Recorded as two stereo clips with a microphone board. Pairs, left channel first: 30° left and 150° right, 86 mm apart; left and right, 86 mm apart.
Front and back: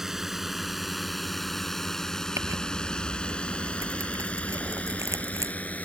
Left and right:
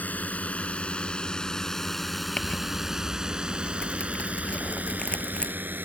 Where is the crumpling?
165° left.